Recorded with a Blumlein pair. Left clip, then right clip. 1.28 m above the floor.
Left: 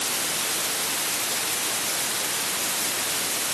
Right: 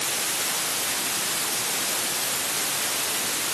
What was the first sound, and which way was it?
Only background noise.